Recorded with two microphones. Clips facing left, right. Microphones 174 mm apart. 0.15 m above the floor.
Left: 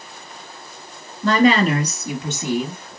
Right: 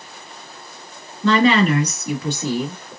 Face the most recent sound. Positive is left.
turn(degrees=0)  # may be behind; listen again after turning